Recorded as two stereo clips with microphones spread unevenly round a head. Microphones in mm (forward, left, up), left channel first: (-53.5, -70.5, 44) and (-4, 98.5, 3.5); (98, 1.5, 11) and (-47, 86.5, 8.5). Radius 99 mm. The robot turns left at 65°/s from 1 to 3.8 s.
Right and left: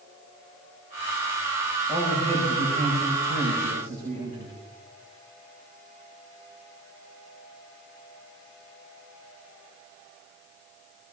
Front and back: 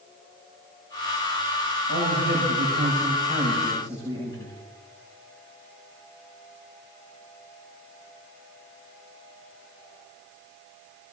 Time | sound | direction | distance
1.9 | a man speaking | 155° left | 6.5 m